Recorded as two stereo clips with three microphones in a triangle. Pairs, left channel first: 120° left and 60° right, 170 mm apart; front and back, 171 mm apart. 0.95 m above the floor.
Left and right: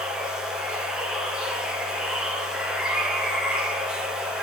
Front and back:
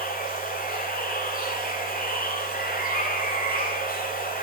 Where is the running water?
25° left, 1.8 m.